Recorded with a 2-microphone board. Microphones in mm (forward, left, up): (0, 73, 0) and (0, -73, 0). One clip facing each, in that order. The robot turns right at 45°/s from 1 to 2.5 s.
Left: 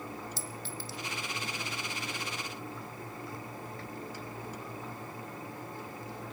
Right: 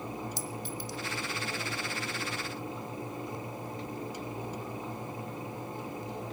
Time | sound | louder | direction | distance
0.4 | a clink | right 4 dB | 15° right (ahead or behind) | 0.9 m